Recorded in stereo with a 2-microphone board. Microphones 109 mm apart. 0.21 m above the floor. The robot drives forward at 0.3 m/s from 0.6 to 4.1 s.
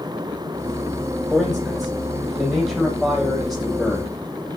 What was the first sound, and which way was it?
A man speaking, centre (ahead or behind).